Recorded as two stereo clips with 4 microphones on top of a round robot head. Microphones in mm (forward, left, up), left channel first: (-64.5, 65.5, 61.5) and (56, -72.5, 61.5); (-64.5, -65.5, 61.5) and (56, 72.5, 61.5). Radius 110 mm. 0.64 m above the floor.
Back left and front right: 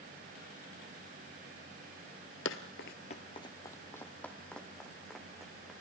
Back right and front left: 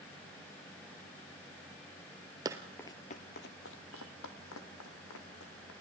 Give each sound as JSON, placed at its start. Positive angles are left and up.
{"t": 2.5, "sound": "running footsteps", "azimuth_deg": 115, "distance_m": 0.8}